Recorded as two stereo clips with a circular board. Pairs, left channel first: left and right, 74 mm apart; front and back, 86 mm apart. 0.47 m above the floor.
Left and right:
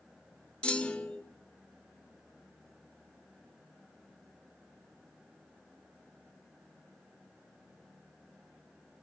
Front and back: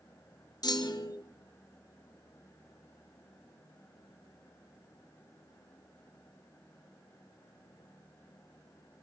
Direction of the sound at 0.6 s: 15° left.